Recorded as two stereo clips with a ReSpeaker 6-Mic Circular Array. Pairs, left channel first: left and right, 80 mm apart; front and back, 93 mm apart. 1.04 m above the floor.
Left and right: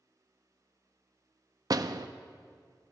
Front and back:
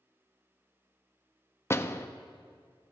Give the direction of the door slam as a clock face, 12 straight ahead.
2 o'clock.